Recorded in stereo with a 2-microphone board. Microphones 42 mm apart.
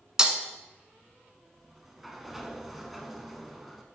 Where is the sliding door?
5° right (ahead or behind), 0.6 m.